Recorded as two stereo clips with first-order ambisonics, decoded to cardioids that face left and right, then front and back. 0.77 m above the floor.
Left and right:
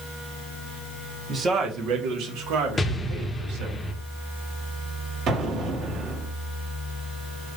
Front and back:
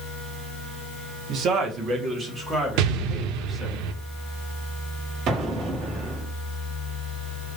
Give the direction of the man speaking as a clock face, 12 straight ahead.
5 o'clock.